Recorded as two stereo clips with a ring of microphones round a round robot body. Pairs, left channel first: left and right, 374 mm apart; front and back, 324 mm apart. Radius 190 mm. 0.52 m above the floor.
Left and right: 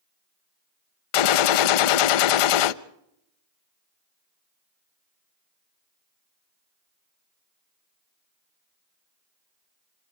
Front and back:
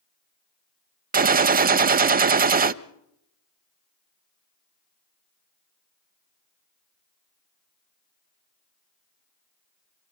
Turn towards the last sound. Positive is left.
turn(degrees=115)